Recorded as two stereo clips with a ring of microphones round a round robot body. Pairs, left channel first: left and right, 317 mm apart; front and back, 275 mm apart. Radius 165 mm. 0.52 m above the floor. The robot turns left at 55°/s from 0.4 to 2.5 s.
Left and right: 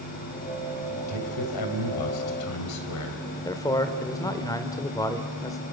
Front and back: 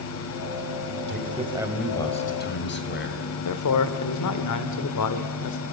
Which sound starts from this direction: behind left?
A man speaking, at 1.1 s.